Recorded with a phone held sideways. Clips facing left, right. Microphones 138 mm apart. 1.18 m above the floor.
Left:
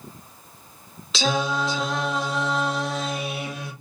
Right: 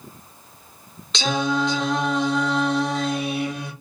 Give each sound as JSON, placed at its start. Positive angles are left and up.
{"t": 1.1, "sound": "singing", "side_deg": 5, "distance_m": 0.8}